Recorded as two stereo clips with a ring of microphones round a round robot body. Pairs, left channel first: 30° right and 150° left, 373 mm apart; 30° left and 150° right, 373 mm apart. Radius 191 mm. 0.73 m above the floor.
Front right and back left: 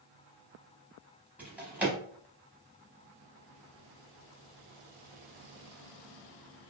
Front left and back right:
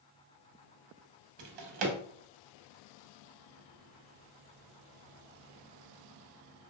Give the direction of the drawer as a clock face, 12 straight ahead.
4 o'clock.